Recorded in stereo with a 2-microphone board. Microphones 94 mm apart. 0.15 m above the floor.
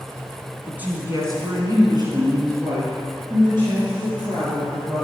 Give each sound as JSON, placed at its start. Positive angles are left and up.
{"t": 0.7, "sound": "a woman speaking", "side_deg": -15, "distance_m": 1.7}